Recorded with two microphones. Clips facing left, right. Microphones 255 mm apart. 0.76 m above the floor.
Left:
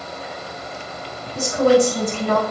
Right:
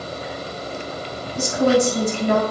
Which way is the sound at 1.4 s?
65° left (ahead or behind).